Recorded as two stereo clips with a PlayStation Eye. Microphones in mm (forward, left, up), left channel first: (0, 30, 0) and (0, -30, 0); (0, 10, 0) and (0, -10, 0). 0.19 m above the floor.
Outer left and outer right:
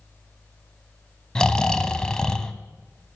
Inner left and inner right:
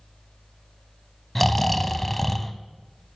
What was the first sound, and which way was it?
Snoring, 10° left (ahead or behind).